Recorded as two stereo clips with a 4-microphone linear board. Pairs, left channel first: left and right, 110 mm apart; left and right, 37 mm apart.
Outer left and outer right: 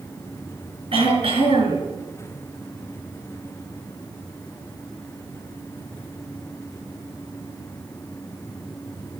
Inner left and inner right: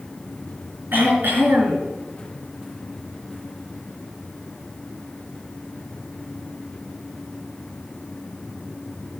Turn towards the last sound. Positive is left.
turn(degrees=-60)  # may be behind; listen again after turning